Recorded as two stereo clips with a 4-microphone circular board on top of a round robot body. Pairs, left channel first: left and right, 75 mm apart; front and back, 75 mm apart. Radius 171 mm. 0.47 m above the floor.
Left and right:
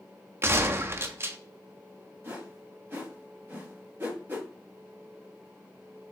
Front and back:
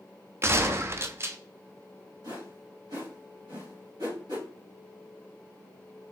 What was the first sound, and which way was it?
A gunshot, 135° right.